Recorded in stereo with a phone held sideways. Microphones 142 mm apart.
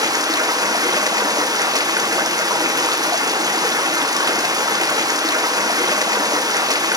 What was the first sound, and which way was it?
Running water, 25° right (ahead or behind).